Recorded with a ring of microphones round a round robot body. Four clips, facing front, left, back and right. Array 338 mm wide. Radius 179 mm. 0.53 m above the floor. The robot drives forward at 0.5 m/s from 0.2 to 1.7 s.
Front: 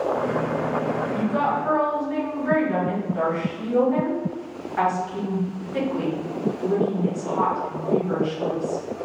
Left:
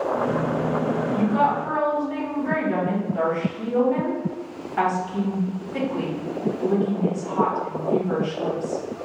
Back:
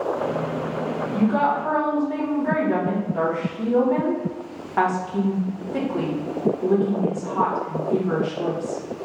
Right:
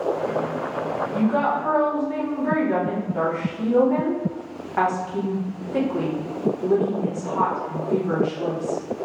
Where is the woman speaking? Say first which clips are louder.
Even, back 5 dB; 130° right, 1.5 m; by 8.8 s 140° right, 1.6 m.